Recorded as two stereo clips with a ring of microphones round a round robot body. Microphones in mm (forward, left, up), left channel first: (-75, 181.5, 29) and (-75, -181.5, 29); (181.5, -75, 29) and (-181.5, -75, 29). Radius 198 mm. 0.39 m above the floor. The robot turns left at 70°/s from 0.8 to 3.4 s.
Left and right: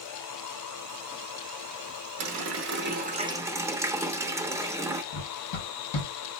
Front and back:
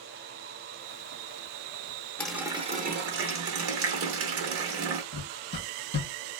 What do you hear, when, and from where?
2.2 s a running tap: 85° right, 0.8 m; by 5.0 s 170° right, 0.8 m
5.1 s running footsteps: 65° left, 0.9 m